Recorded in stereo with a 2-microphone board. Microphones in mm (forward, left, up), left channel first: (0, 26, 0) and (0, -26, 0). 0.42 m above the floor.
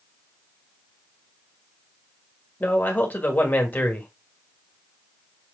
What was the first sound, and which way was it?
A man speaking, 35° left (ahead or behind).